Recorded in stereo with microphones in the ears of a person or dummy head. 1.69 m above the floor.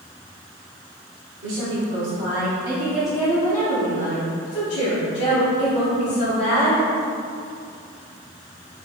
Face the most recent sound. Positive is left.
turn(degrees=75)  # may be behind; listen again after turning